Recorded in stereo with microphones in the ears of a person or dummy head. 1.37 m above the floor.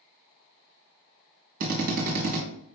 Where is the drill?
60° right (ahead or behind), 1.4 m.